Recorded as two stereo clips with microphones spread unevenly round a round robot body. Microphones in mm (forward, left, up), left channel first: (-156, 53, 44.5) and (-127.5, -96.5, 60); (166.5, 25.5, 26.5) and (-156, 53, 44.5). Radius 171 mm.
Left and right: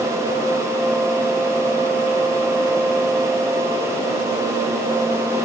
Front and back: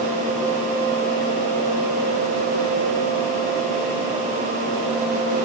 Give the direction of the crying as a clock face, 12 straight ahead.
No crying in this recording.